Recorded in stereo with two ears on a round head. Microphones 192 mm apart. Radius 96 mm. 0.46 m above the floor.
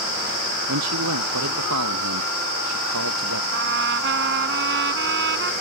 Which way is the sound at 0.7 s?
85° right.